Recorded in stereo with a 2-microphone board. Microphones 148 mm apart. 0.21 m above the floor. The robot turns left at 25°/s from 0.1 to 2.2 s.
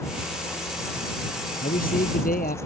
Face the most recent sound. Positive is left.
turn(degrees=75)  # may be behind; listen again after turning